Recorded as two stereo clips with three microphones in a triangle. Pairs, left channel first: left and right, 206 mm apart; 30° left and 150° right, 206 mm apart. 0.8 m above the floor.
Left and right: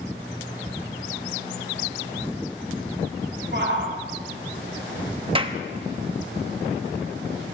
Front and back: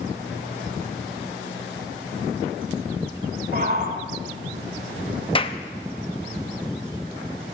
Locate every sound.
3.5 s a shout: 110° right, 2.5 m
5.3 s a clap: 35° right, 0.7 m